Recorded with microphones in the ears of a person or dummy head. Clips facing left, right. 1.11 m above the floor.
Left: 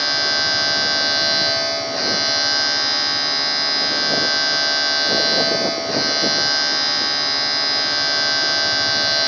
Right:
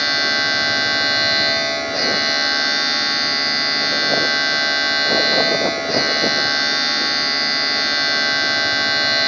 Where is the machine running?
35° right (ahead or behind), 1.0 m.